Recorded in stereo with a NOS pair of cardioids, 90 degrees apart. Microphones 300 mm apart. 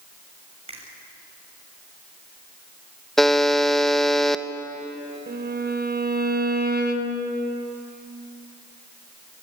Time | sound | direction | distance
0.7 | a finger snap | 20° right | 7 m
3.2 | a buzzer | straight ahead | 1.0 m
5.3 | a violin | 30° right | 3.5 m